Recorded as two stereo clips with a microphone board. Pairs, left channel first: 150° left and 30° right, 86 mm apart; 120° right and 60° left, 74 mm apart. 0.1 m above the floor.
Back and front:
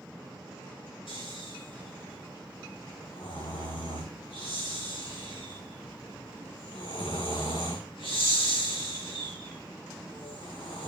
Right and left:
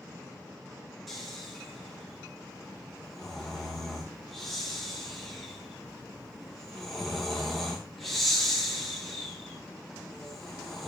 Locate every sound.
1.1 s snoring: 150° left, 4 m